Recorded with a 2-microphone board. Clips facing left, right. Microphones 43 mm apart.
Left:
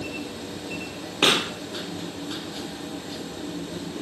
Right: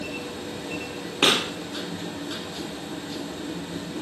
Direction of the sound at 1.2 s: 5° left (ahead or behind).